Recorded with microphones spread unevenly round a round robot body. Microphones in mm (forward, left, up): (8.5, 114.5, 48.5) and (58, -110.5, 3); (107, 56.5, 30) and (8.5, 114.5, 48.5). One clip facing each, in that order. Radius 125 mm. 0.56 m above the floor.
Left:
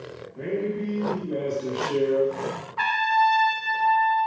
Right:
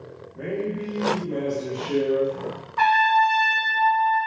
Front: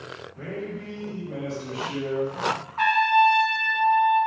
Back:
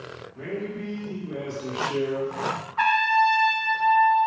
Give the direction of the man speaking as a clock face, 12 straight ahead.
5 o'clock.